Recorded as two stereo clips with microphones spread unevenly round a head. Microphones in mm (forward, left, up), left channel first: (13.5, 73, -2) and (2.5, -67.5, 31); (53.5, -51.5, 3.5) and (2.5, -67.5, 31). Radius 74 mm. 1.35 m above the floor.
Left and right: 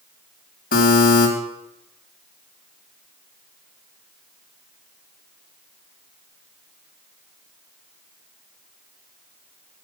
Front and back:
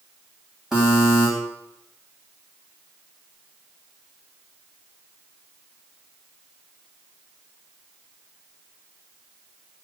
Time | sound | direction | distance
0.7 | a buzzer | 105° left | 2.5 m